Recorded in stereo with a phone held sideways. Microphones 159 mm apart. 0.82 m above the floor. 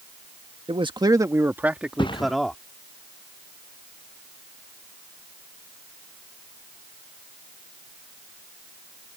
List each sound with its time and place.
0.7 s a man speaking: 35° right (ahead or behind); by 2.6 s 5° left (ahead or behind)
2.0 s a thud: 30° left (ahead or behind)